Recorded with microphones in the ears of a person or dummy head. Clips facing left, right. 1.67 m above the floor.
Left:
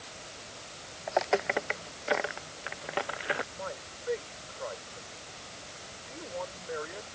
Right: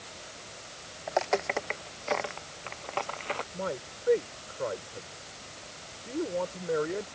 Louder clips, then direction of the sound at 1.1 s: Even; 5° left (ahead or behind).